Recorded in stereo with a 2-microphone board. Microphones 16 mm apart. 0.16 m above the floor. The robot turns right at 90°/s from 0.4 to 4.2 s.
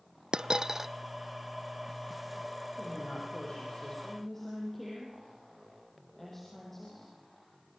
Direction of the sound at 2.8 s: 25° left.